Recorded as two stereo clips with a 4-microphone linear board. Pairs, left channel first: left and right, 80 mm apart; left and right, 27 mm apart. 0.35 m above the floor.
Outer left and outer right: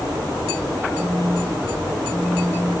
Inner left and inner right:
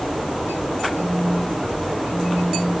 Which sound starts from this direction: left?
A phone buzzing, at 0.9 s.